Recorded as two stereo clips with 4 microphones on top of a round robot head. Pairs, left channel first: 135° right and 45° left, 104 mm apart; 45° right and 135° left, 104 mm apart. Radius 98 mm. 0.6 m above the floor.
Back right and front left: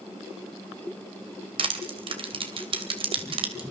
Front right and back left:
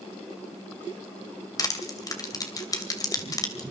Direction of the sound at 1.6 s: 10° left.